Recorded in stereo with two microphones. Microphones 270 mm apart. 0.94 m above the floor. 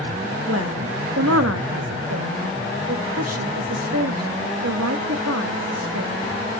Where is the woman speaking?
70° right (ahead or behind), 1.4 m.